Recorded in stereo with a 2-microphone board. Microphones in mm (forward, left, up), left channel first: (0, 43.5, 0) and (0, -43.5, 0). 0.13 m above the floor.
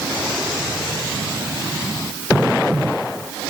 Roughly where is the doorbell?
No doorbell in this recording.